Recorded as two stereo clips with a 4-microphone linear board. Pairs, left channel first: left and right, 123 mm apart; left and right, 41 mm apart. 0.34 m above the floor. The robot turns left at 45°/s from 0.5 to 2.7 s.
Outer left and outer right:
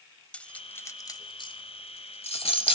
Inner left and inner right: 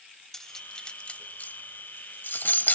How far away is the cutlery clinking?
About 0.9 m.